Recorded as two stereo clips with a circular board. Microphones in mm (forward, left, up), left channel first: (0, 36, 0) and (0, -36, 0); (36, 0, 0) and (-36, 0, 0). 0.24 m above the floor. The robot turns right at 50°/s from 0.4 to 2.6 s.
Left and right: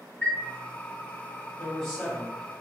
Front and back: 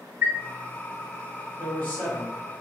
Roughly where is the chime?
Behind left.